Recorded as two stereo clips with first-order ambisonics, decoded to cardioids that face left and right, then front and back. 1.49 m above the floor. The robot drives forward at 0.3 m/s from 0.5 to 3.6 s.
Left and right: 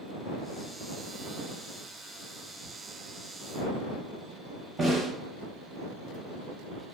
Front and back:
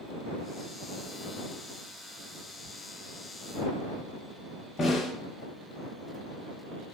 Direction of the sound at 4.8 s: 40° right.